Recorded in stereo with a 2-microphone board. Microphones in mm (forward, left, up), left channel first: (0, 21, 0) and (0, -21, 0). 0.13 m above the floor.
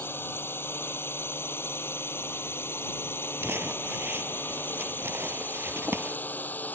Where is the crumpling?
70° right (ahead or behind).